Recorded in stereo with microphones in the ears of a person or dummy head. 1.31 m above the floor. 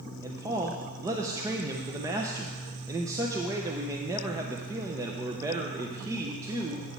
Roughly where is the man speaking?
Centre.